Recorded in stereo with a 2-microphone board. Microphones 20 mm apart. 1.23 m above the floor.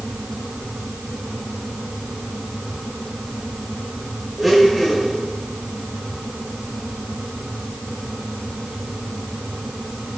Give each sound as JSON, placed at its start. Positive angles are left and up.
{"t": 4.4, "sound": "a blender", "side_deg": 5, "distance_m": 2.5}